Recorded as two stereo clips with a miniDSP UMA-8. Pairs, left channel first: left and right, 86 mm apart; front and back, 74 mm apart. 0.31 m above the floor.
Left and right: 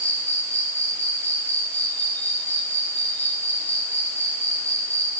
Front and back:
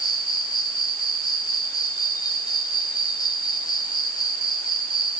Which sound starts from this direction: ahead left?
An insect, at 0.0 s.